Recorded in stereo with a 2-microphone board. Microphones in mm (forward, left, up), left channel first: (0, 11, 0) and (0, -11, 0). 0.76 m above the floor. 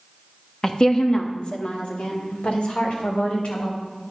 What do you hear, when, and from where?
0.6 s a woman speaking: 30° left (ahead or behind), 0.9 m; by 3.9 s 70° left (ahead or behind), 3.5 m